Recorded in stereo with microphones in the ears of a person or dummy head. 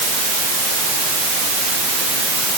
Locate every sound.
Only background noise.